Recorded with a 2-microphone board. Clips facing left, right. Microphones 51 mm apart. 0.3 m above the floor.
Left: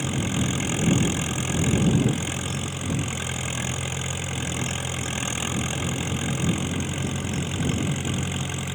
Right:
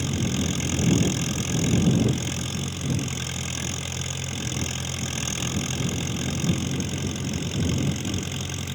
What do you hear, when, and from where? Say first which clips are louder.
0.0 s an engine running: left 1 dB; 15° left (ahead or behind)